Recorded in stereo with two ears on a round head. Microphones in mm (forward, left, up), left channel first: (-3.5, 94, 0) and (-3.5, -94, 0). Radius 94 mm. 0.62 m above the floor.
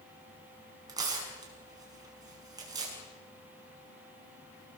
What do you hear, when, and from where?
0.9 s tearing paper: 20° right (ahead or behind), 6.5 m